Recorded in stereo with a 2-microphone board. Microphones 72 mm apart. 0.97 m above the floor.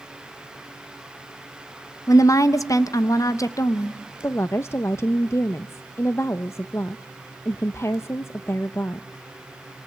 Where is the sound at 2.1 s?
50° left (ahead or behind), 1.1 m.